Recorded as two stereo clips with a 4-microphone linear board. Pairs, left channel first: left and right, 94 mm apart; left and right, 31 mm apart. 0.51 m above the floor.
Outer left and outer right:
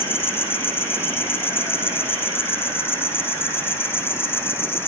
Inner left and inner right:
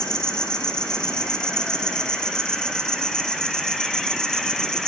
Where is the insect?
25° left (ahead or behind), 1.6 m.